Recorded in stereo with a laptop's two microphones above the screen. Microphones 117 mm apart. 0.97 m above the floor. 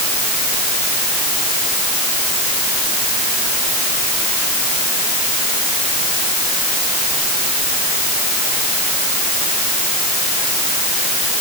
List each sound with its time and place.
Only background noise.